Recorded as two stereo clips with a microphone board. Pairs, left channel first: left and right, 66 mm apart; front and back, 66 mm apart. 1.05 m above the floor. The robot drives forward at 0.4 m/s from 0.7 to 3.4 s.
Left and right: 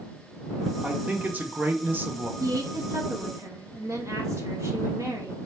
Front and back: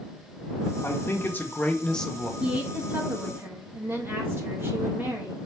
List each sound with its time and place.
0.8 s a man speaking: 30° right, 0.9 m; by 2.3 s 90° right, 0.6 m
2.4 s a woman speaking: 110° right, 1.2 m; by 5.4 s 125° right, 1.3 m